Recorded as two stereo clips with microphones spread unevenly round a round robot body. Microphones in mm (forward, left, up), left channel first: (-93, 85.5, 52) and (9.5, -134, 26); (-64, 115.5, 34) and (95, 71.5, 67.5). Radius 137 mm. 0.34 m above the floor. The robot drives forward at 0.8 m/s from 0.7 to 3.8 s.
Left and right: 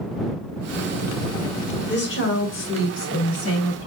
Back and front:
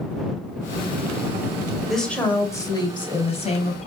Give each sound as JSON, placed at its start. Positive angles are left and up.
{"t": 1.9, "sound": "a woman speaking", "azimuth_deg": 85, "distance_m": 1.5}